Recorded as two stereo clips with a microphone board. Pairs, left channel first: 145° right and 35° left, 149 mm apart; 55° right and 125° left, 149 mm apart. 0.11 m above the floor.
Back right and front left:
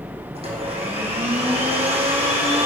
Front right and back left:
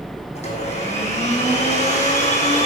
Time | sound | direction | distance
0.3 | a blender | 10° right | 4.5 m